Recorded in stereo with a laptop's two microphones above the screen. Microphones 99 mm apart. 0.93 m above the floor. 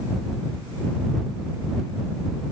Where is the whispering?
I don't hear whispering.